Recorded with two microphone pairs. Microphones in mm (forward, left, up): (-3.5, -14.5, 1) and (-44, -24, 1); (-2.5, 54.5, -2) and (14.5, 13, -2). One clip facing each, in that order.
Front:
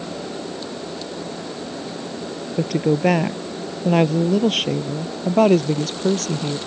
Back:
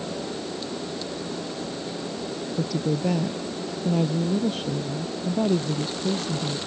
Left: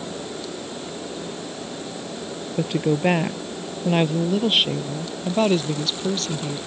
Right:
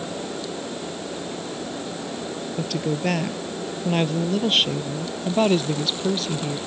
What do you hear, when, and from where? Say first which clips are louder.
2.6 s a woman speaking: front 8 dB, left 5 dB; 45° left; by 6.6 s 15° left